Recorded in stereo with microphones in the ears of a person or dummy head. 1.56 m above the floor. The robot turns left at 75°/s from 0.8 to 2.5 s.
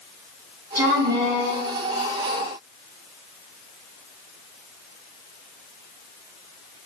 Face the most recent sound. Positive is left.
turn(degrees=110)